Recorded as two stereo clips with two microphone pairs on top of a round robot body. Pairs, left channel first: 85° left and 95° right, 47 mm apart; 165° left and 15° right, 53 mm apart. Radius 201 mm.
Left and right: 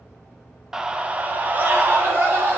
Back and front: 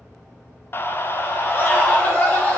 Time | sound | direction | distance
0.7 | a scream | 170° right | 1.1 m